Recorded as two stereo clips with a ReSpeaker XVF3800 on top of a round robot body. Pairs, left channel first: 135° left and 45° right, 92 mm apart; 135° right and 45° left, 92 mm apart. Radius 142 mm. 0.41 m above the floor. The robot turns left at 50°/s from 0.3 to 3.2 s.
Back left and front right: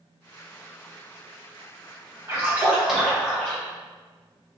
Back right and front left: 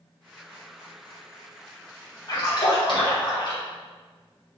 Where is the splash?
100° right, 1.6 m; by 3.6 s 145° right, 1.6 m.